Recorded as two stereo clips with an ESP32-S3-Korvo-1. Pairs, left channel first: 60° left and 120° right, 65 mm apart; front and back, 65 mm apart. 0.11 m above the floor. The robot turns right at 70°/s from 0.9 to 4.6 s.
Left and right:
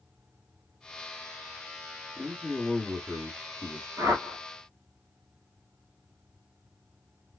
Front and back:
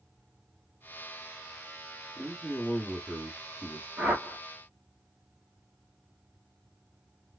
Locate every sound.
2.2 s a man speaking: 175° right, 1.1 m; by 3.9 s 55° right, 1.1 m
4.0 s a whoosh: 115° right, 1.3 m; by 4.4 s 85° right, 1.3 m